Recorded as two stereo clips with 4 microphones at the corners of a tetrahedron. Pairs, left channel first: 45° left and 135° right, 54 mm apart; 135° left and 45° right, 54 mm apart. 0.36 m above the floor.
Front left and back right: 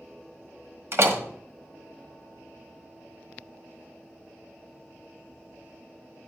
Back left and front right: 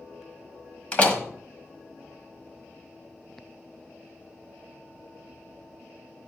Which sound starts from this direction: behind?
A door slam, at 0.9 s.